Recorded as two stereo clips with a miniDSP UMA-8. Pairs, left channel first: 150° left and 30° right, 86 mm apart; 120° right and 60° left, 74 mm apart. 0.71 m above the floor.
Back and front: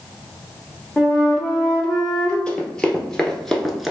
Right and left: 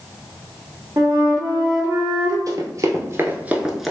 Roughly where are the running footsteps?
Left.